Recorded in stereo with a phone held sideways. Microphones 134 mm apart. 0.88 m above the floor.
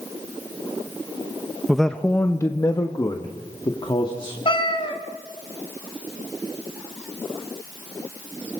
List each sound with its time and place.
1.7 s a man speaking: centre (ahead or behind), 0.7 m; by 4.3 s 40° left (ahead or behind), 2 m
4.5 s a cat meowing: 40° left (ahead or behind), 1.7 m